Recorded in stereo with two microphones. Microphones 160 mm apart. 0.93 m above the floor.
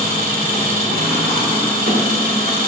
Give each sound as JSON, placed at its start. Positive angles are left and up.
{"t": 0.0, "sound": "an engine running", "side_deg": -75, "distance_m": 1.9}